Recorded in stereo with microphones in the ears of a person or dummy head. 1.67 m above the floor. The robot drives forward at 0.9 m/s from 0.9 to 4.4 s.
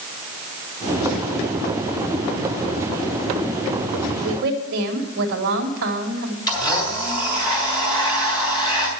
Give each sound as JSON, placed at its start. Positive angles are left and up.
{"t": 4.2, "sound": "a woman speaking", "side_deg": -70, "distance_m": 1.5}
{"t": 6.5, "sound": "a blender", "side_deg": 20, "distance_m": 2.5}